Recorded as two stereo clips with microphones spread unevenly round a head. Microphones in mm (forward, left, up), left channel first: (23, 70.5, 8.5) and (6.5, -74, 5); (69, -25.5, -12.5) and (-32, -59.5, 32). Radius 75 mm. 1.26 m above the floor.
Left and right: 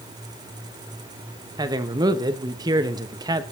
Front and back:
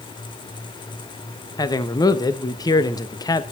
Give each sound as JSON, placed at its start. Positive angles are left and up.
{"t": 1.6, "sound": "a man speaking", "azimuth_deg": -35, "distance_m": 1.2}